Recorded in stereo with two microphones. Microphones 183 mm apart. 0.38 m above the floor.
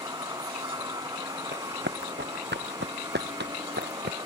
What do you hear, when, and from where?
0.0 s a vehicle: 20° right (ahead or behind)
1.5 s running footsteps: 80° right